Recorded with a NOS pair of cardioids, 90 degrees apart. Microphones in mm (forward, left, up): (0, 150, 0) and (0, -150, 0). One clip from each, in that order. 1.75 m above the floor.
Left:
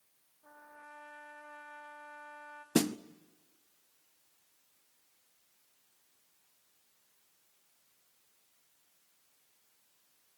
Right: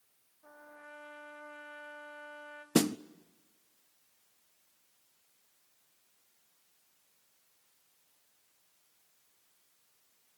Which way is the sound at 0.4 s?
15° right.